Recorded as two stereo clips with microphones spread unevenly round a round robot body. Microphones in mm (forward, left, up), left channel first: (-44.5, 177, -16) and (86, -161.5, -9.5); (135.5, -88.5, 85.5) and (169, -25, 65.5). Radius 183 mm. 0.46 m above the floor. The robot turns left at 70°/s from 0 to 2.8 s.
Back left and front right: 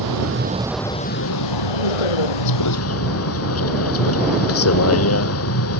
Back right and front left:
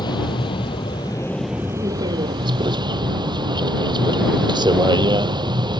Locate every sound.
0.0 s a vehicle: 105° right; by 5.8 s 60° left